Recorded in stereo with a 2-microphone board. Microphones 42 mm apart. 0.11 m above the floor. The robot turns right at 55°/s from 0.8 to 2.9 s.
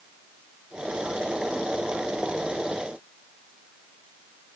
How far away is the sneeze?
I don't hear a sneeze.